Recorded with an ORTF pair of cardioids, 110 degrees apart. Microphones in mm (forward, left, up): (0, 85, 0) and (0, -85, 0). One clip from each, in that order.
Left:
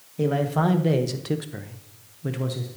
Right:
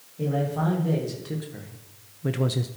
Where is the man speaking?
60° left, 1.9 m; by 2.7 s 40° right, 0.7 m.